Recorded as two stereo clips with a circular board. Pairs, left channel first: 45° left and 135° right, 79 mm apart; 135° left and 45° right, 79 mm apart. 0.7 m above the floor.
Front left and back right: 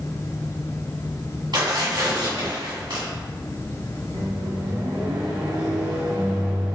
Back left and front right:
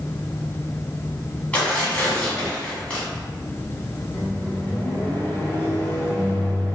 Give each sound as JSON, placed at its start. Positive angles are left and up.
{"t": 1.5, "sound": "tearing paper", "azimuth_deg": -150, "distance_m": 1.9}
{"t": 4.1, "sound": "a microwave", "azimuth_deg": -160, "distance_m": 1.0}